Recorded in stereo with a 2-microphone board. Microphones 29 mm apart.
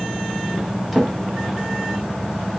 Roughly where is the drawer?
Centre.